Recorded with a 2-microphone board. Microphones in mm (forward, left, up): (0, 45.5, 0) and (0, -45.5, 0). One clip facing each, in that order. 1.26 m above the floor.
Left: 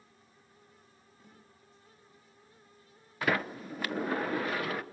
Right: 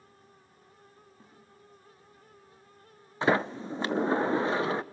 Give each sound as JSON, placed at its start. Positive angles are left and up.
{"t": 1.2, "sound": "a snare drum", "side_deg": -40, "distance_m": 10.0}
{"t": 3.2, "sound": "a sliding door", "side_deg": -25, "distance_m": 0.8}